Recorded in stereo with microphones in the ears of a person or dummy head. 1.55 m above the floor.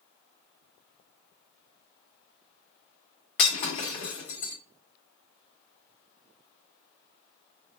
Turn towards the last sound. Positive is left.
turn(degrees=50)  # may be behind; listen again after turning